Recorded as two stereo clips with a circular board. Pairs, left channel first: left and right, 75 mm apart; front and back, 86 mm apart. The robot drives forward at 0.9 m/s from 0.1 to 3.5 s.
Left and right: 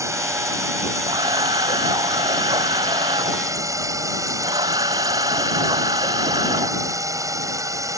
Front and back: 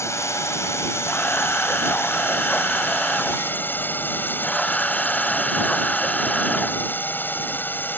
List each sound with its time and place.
0.0 s a drone: 50° right; by 8.0 s 65° right
1.1 s a camera shutter: 75° right; by 6.8 s 80° right